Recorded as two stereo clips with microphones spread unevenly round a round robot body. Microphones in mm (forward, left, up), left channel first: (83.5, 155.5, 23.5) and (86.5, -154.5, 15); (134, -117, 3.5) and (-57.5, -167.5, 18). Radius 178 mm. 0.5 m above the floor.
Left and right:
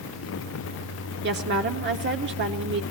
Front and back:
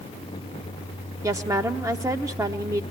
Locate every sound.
1.2 s a woman speaking: 95° right, 0.9 m